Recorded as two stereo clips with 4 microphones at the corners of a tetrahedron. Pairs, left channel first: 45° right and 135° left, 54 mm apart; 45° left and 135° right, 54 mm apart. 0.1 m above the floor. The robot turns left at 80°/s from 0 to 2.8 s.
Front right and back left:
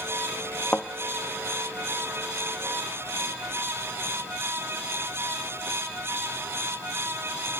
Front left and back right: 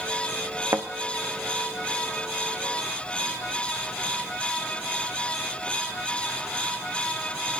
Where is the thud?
105° right, 0.8 m; by 0.9 s 115° right, 0.8 m.